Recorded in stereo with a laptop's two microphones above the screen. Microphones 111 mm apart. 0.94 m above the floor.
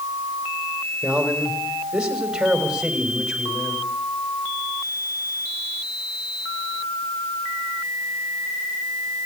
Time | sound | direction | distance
1.0 | a man speaking | 10° right (ahead or behind) | 4 m